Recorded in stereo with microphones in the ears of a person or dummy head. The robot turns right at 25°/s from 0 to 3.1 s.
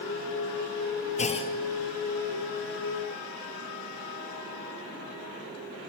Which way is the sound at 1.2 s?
35° left (ahead or behind).